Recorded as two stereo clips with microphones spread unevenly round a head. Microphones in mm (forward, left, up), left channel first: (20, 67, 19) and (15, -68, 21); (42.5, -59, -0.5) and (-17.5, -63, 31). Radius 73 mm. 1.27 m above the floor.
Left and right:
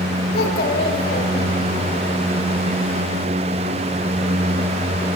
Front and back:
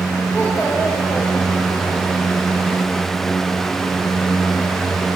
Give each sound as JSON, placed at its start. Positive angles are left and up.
{"t": 0.3, "sound": "a child speaking", "azimuth_deg": 85, "distance_m": 3.0}